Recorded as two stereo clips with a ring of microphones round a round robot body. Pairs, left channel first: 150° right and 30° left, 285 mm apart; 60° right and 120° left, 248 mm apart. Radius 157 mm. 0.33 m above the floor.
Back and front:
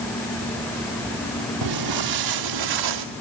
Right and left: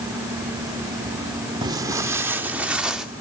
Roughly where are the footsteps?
Ahead left.